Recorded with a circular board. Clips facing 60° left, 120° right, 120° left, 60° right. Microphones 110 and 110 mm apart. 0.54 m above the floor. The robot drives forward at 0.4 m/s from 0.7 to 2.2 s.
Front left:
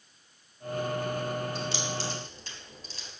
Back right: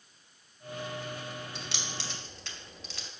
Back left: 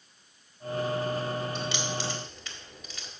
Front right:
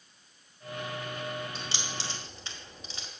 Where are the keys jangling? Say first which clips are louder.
Front left 8 dB, back left 6 dB; 115° right, 1.9 m; by 3.1 s 120° right, 2 m.